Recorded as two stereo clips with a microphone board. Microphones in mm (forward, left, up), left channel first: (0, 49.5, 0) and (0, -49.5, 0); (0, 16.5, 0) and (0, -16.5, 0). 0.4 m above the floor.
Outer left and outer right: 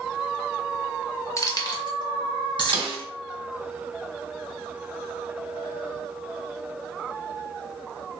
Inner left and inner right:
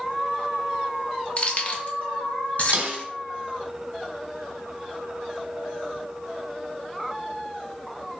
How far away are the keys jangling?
About 0.5 m.